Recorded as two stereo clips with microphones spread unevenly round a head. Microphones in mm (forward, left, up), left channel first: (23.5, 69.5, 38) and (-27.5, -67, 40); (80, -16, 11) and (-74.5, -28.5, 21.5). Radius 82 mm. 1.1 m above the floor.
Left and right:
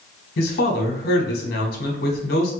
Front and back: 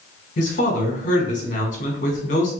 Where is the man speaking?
50° left, 1.1 m.